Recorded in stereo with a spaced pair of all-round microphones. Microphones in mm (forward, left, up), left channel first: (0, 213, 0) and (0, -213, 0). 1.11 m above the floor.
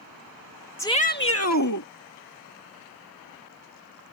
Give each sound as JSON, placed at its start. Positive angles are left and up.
{"t": 0.8, "sound": "a shout", "side_deg": 5}